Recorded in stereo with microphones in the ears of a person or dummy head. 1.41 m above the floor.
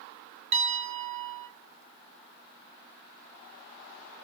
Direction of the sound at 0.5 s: 30° right (ahead or behind).